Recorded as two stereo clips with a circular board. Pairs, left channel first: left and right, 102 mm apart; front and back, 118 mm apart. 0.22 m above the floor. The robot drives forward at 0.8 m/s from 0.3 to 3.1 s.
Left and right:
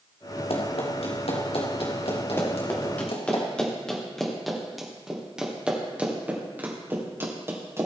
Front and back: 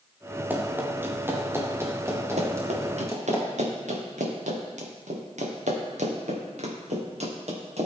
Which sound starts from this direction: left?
Running footsteps, at 0.5 s.